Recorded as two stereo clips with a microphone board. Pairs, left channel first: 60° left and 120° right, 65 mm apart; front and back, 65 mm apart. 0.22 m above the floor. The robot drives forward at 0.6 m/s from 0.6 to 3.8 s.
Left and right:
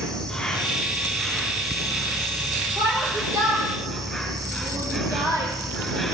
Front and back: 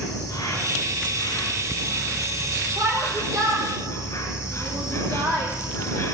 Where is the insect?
20° right, 5 m; by 6.1 s 30° right, 3.5 m.